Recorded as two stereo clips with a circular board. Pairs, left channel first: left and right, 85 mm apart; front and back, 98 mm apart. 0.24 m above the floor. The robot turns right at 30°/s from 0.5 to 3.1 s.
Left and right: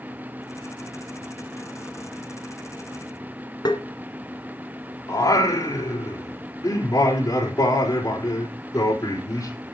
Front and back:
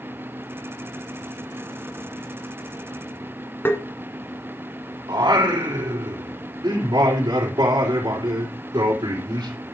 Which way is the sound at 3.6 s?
65° left.